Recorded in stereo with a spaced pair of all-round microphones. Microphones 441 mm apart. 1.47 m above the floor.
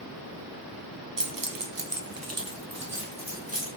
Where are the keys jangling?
45° right (ahead or behind), 0.5 m; by 3.7 s 15° right (ahead or behind), 1.2 m.